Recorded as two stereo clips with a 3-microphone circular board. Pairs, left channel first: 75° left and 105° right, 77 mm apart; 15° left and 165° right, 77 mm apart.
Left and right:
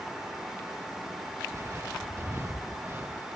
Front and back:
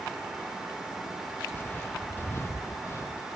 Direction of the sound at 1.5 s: 50° right.